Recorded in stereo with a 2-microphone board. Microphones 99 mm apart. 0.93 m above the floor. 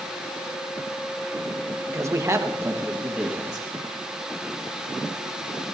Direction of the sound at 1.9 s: 30° right (ahead or behind).